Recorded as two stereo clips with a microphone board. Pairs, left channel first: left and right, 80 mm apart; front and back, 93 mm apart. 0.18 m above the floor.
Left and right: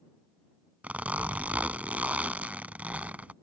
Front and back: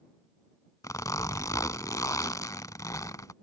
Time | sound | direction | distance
0.8 | a zipper | 25° right | ?